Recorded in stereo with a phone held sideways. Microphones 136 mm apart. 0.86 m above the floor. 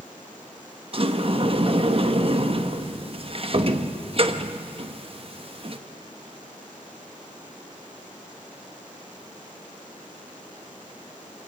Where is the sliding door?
45° right (ahead or behind), 1.1 m.